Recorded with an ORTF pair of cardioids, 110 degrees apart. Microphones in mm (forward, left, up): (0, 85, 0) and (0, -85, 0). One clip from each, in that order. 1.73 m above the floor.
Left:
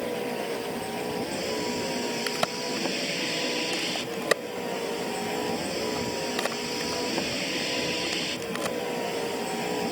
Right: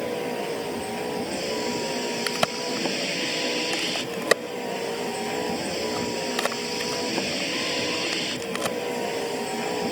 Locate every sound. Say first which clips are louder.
0.0 s a vehicle: right 2 dB; 20° right
2.3 s a crack: right 3 dB; 25° right